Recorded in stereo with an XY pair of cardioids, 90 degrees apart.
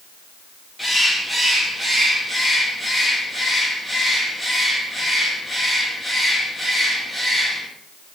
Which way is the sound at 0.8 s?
10° left.